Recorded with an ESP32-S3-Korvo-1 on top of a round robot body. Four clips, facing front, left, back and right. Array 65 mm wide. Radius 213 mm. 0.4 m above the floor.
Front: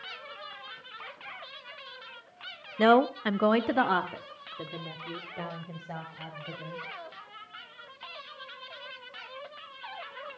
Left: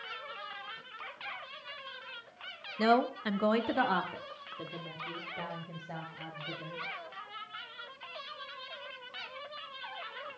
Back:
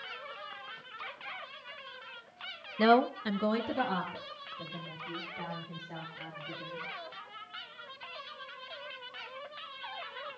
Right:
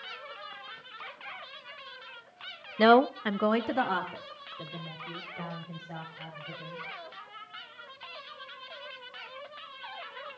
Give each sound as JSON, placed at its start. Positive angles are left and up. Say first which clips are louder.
{"t": 2.8, "sound": "a woman speaking", "louder": "right 7 dB, front 3 dB", "azimuth_deg": -80, "distance_m": 1.1}